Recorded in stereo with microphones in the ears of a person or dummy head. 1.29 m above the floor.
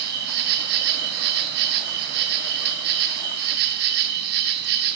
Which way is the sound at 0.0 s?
60° right (ahead or behind).